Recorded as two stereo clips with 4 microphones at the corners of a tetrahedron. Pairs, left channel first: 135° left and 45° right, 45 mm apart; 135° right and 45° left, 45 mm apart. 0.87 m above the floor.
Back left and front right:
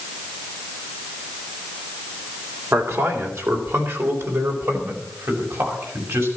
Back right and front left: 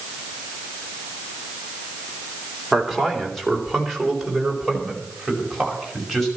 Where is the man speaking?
45° right, 3 m.